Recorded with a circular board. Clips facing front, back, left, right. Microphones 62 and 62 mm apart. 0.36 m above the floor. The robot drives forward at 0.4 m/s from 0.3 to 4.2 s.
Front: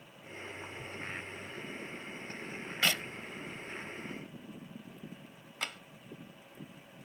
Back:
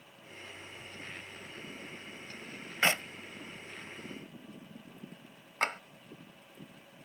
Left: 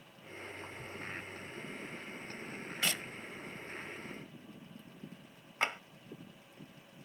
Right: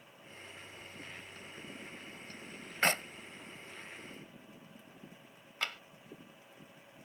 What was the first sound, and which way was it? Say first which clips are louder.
A clap: back 3 dB, right 6 dB; 125° right.